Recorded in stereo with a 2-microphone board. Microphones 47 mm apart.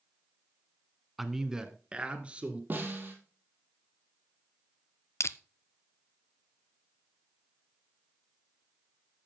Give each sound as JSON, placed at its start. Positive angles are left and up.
{"t": 1.2, "sound": "a man speaking", "side_deg": -5, "distance_m": 1.2}
{"t": 2.7, "sound": "a snare drum", "side_deg": -35, "distance_m": 3.0}
{"t": 5.2, "sound": "crushing", "side_deg": 70, "distance_m": 0.5}